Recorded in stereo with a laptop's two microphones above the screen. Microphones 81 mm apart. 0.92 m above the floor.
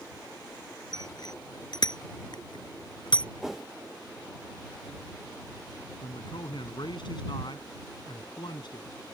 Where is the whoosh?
5° right (ahead or behind).